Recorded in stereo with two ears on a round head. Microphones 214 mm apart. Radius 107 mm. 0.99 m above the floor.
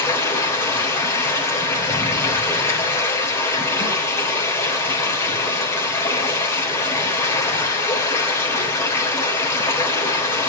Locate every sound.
0.0 s running water: 10° left (ahead or behind), 3.5 m